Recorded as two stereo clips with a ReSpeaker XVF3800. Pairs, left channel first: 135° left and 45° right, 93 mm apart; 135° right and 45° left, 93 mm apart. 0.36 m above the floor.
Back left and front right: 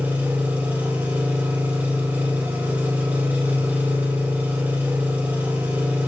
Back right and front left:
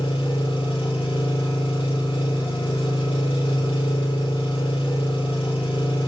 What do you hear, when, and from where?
0.0 s an engine running: 115° right, 3 m